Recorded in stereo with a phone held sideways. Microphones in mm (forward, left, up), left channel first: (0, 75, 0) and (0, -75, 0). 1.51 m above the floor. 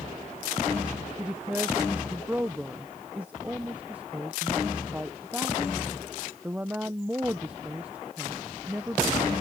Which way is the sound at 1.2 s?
10° right (ahead or behind).